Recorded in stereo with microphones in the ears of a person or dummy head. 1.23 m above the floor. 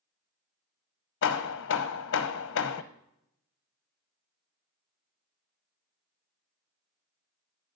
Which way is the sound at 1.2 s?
65° left (ahead or behind).